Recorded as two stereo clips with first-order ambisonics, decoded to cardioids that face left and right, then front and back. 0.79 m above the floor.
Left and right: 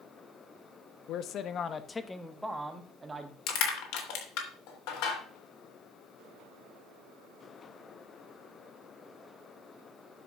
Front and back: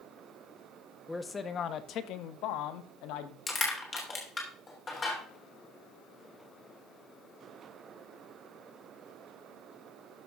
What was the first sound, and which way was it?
A man speaking, 80° left.